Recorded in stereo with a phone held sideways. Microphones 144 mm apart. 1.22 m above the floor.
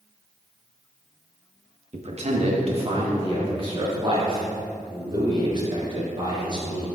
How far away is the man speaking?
About 1.1 m.